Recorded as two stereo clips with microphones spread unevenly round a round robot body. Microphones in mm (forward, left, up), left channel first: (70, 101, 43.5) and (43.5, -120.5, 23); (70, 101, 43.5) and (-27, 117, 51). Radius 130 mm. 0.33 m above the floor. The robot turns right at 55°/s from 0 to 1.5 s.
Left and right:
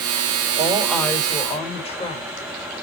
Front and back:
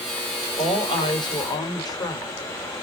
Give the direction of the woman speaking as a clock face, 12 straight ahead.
1 o'clock.